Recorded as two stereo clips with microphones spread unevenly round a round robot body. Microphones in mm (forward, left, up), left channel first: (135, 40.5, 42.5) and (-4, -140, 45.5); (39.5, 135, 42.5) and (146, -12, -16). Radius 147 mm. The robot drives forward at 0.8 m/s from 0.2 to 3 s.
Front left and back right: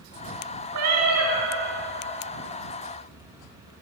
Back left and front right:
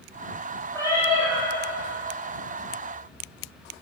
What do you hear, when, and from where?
0.7 s a cat meowing: 150° right, 0.9 m; by 1.5 s 160° right, 1.4 m